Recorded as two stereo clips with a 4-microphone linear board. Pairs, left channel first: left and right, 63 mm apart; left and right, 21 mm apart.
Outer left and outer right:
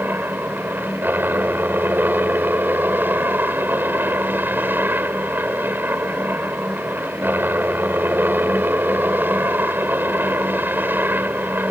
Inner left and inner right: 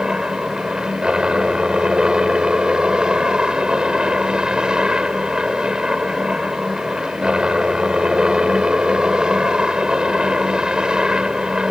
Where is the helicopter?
35° right (ahead or behind).